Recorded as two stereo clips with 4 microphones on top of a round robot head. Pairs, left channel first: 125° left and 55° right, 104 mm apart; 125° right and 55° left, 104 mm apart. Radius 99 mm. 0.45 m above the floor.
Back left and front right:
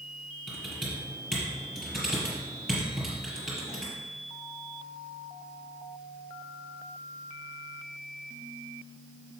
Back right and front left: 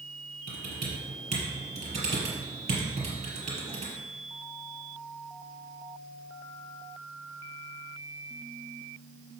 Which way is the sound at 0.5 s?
30° left.